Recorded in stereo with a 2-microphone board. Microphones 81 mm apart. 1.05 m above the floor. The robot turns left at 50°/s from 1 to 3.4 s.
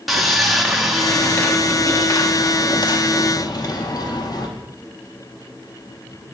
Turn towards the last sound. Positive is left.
turn(degrees=65)